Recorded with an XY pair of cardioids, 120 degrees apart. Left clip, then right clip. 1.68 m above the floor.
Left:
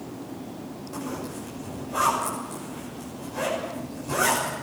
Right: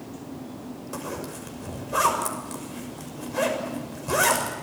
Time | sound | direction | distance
0.9 | a zipper | 45° right | 6 m